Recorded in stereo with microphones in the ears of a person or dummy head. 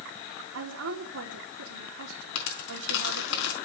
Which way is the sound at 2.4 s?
65° left (ahead or behind).